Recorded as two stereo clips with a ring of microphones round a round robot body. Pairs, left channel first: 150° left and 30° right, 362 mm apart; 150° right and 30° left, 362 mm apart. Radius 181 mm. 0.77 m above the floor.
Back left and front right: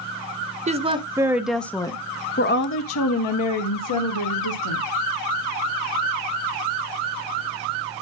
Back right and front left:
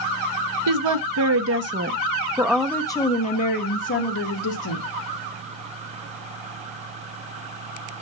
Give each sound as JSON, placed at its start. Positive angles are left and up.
{"t": 0.7, "sound": "a woman speaking", "azimuth_deg": 40, "distance_m": 1.2}